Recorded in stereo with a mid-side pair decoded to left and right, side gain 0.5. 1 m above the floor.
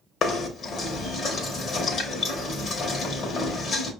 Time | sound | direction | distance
0.2 | knocking | 55° left | 1.3 m